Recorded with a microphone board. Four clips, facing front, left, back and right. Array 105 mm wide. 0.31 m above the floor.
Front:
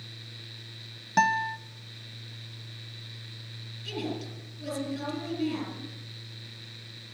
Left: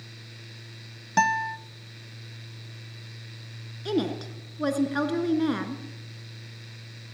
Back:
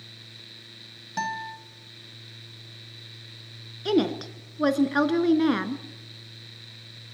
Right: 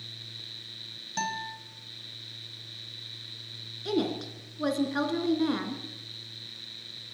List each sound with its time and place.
1.2 s a guitar: 55° left, 1.7 m
3.9 s a woman speaking: 175° left, 3.5 m